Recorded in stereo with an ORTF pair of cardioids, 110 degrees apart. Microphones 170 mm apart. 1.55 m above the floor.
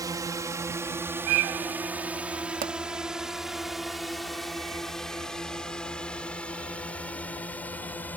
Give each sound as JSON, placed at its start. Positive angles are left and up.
{"t": 0.0, "sound": "a drone", "azimuth_deg": -20}
{"t": 2.6, "sound": "a pop", "azimuth_deg": -55}